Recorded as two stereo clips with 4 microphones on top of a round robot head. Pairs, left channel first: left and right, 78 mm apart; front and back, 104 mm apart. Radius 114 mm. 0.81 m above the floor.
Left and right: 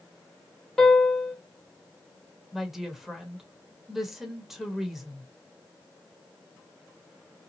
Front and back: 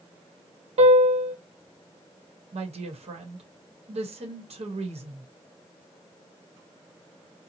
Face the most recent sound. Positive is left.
turn(degrees=-175)